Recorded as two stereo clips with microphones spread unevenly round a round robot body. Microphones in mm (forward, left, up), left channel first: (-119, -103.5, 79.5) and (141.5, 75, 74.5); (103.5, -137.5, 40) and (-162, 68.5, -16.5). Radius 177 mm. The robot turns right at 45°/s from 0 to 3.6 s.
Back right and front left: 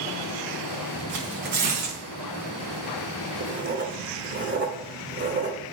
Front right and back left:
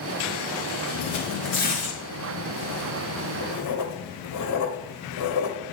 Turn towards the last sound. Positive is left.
turn(degrees=-5)